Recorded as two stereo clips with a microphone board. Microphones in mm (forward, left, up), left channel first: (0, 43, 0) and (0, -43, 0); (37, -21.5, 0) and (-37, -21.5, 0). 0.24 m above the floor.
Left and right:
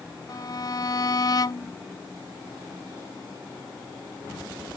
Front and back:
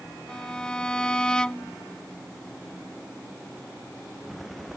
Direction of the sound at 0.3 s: 75° left.